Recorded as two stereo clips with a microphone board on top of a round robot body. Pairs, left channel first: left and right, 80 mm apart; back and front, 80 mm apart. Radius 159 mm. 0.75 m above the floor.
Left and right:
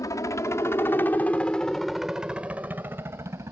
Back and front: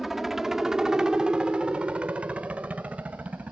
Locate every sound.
0.0 s a helicopter: 85° left; by 3.5 s 65° right